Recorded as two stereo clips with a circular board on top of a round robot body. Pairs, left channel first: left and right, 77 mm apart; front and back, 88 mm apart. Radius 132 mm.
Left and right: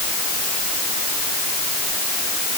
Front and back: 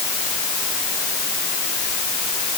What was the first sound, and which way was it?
Only background noise.